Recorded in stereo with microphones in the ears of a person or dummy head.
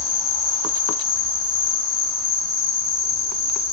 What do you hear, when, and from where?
0.0 s an insect: 5° left (ahead or behind), 0.7 m